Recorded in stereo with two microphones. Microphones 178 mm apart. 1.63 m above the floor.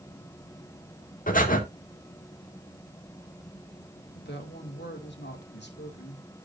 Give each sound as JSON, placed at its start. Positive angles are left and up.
{"t": 1.3, "sound": "breathing", "side_deg": 50, "distance_m": 2.0}
{"t": 4.2, "sound": "a woman speaking", "side_deg": 80, "distance_m": 2.5}